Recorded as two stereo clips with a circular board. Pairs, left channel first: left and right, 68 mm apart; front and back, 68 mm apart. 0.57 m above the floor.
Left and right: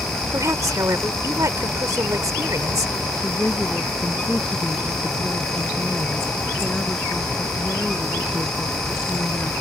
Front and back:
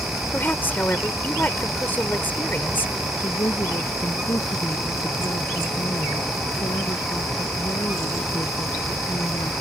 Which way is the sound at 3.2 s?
15° left.